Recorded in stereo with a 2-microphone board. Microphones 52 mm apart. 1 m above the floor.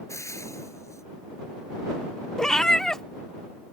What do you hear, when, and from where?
0.1 s frying: 75° left (ahead or behind)
2.4 s a cat meowing: 10° left (ahead or behind)